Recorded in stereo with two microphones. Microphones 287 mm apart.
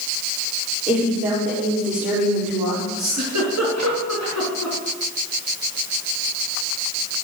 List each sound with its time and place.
0.9 s a woman speaking: 5° right (ahead or behind), 6 m
3.0 s a giggle: 65° right (ahead or behind), 3.5 m